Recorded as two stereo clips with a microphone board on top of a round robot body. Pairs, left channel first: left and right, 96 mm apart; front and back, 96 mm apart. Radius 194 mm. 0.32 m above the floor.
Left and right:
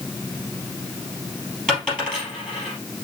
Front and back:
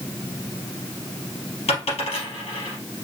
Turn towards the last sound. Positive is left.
turn(degrees=5)